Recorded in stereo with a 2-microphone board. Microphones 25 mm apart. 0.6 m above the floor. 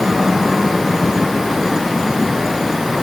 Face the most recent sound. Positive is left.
No sound to turn to.